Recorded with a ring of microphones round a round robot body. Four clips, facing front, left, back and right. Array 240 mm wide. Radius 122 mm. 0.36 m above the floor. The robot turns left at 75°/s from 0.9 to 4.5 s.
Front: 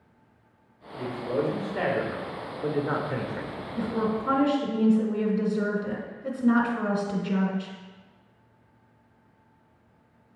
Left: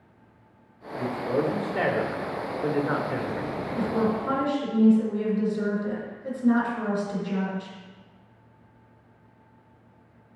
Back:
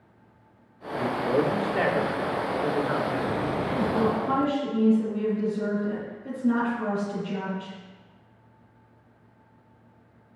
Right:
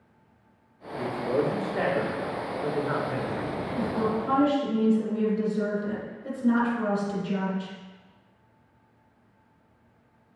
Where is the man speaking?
150° right, 0.9 m; by 3.5 s 20° left, 0.9 m.